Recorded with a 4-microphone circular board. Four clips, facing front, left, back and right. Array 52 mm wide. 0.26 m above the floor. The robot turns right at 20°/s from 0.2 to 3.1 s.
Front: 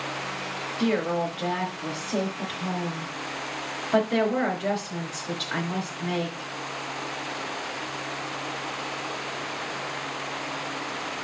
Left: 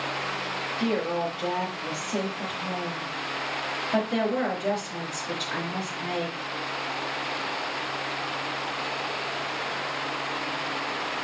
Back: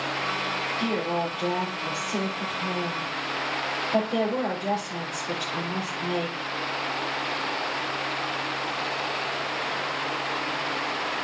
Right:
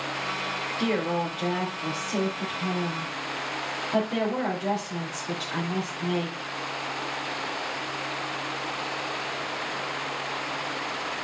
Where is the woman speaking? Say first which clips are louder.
Even, front 4 dB; 35° right, 4 m; by 6.5 s 10° left, 4 m.